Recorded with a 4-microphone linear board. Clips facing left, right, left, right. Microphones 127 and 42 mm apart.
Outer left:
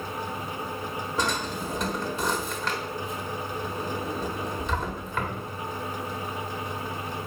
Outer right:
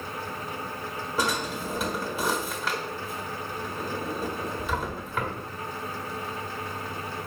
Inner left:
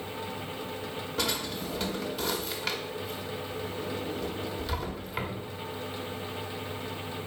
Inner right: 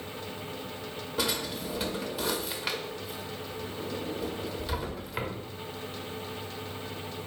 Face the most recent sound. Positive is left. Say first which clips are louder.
# outer right 1 dB, inner right 1 dB
turn(degrees=-5)  # may be behind; listen again after turning